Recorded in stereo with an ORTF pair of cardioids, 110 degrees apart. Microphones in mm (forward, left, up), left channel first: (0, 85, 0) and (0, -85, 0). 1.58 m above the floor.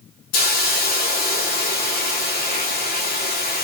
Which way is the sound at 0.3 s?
65° left.